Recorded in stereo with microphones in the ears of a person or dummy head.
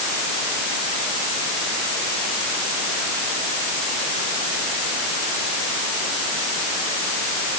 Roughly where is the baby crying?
No baby crying in this recording.